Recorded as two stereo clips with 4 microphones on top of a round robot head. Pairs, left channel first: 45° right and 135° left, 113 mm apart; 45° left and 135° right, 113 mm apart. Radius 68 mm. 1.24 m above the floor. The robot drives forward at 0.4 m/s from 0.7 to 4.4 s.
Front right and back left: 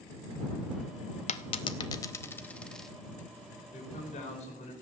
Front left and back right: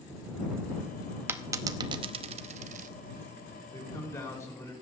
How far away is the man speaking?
About 5 m.